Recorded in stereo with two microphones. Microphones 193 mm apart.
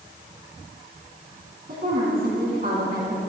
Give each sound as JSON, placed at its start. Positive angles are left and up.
{"t": 1.7, "sound": "a woman speaking", "side_deg": -50, "distance_m": 3.5}